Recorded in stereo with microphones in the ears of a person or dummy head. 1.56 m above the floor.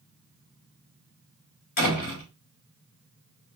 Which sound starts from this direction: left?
A door slam, at 1.8 s.